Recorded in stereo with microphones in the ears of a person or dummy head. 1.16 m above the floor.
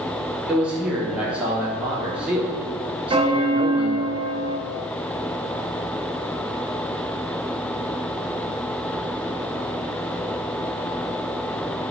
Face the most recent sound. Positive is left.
turn(degrees=-25)  # may be behind; listen again after turning